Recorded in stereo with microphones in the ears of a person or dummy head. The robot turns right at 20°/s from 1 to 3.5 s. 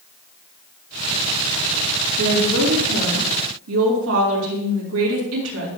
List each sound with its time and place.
2.2 s a woman speaking: 65° right (ahead or behind), 2.5 m; by 5.7 s 80° right, 2.5 m